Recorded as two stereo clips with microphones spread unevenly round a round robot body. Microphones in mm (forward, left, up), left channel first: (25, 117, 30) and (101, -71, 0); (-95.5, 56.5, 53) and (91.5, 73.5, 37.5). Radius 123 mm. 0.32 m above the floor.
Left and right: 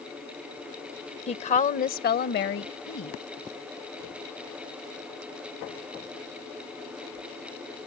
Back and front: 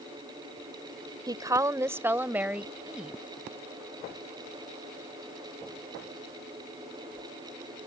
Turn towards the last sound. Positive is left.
turn(degrees=90)